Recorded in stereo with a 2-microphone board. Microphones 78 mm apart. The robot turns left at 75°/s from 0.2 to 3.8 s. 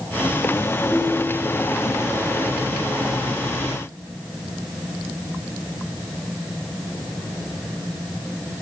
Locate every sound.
0.9 s a ringtone: 10° left, 4 m; by 1.7 s 45° right, 4 m